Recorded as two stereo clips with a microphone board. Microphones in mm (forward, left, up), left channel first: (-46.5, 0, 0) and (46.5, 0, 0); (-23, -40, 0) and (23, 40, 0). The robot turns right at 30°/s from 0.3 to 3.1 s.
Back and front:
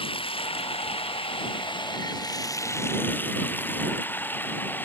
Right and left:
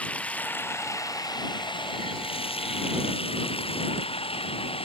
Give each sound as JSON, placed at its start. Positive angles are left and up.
{"t": 0.0, "sound": "running water", "azimuth_deg": 165}